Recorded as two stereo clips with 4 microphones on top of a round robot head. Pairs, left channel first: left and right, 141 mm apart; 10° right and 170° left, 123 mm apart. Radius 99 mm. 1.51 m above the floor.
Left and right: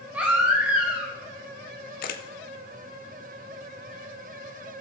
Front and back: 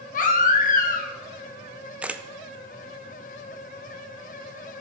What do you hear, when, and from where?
0.1 s a baby crying: 5° right, 1.4 m
2.0 s a camera shutter: 90° left, 0.6 m